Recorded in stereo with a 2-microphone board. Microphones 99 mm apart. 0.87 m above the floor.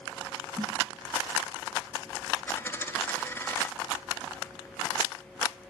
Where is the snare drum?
45° right (ahead or behind), 2.5 m.